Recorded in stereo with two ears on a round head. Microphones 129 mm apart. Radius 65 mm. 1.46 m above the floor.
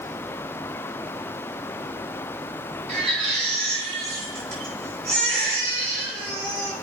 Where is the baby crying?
40° right (ahead or behind), 7.5 m.